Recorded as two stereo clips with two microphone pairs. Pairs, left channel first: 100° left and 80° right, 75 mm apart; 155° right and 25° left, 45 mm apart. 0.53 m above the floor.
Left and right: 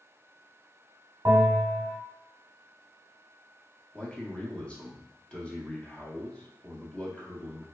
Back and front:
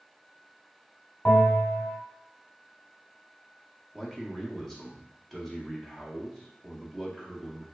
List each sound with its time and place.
1.2 s a bell: 110° right, 0.8 m
3.9 s a man speaking: 135° left, 0.6 m